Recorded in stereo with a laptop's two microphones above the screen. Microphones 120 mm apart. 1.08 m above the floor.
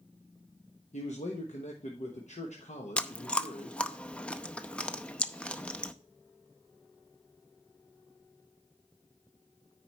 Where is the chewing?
10° left (ahead or behind), 0.7 m.